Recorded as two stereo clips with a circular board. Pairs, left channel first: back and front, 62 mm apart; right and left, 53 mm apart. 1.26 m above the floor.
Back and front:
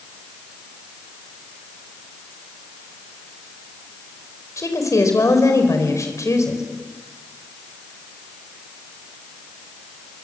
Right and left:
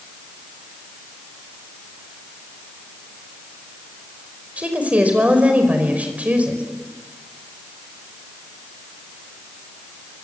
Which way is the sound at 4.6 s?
155° left.